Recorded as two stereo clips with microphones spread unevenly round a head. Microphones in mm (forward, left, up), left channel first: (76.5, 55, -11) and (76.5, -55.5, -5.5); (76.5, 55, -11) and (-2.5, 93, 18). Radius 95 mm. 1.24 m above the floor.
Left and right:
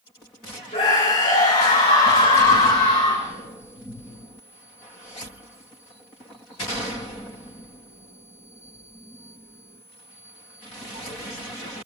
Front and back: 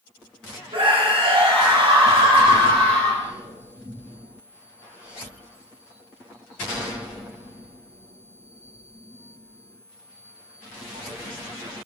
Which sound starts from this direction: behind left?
A scream, at 0.7 s.